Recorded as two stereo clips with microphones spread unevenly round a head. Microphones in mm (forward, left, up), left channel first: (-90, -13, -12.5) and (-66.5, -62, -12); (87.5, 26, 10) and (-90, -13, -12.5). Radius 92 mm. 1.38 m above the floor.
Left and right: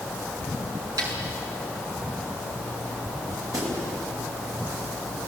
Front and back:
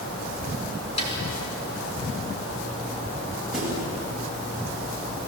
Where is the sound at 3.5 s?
80° right, 8.5 m.